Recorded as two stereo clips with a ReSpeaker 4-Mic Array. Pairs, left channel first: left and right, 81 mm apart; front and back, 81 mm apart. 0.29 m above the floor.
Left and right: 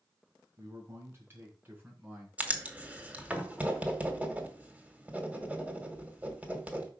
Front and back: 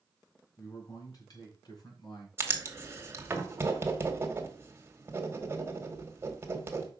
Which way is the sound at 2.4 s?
150° right.